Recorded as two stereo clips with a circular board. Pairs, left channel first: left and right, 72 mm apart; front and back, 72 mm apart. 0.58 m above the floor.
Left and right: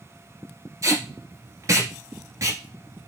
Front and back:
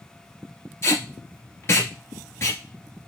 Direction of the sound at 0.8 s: 50° right.